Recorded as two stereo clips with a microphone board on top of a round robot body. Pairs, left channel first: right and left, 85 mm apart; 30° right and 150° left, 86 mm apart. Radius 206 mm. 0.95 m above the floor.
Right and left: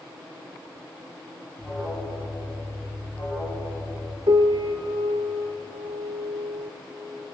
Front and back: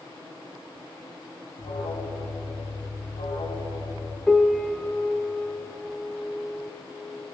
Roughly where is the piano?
Ahead left.